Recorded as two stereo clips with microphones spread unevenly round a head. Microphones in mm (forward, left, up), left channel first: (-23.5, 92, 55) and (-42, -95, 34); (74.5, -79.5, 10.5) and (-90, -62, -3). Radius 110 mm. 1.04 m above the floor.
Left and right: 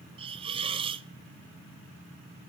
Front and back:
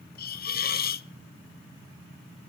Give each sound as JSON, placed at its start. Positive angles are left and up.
{"t": 0.2, "sound": "a hiss", "azimuth_deg": -35, "distance_m": 0.7}